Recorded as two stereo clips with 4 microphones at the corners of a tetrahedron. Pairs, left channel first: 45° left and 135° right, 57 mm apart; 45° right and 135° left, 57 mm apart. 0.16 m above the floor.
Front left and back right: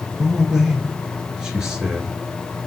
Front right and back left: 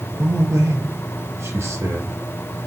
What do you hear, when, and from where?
0.2 s a man speaking: 150° left, 2.5 m